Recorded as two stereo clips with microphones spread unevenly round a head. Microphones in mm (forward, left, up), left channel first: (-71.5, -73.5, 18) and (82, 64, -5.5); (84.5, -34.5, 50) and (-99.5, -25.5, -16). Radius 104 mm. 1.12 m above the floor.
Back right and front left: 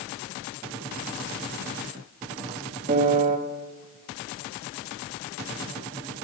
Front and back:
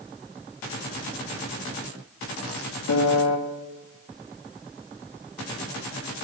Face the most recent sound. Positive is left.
turn(degrees=-10)